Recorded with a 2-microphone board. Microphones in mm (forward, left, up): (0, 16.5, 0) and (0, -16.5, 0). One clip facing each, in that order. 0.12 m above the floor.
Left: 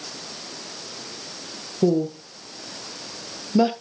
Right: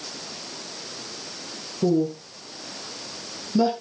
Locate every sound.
1.8 s a woman speaking: 30° left (ahead or behind), 2.5 m